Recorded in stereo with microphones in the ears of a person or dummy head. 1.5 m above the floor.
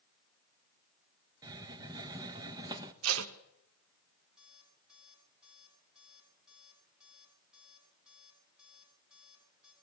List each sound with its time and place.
1.4 s a hiss: 20° right (ahead or behind), 1.3 m
3.0 s tape being pulled: 80° right, 1.7 m
4.4 s an alarm clock: centre (ahead or behind), 8 m